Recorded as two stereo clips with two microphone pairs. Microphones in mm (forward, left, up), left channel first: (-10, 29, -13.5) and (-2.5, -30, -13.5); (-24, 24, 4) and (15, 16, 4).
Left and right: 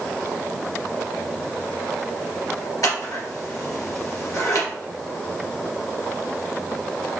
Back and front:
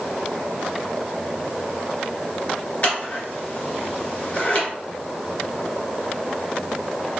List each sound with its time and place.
2.8 s scissors: 115° left, 2 m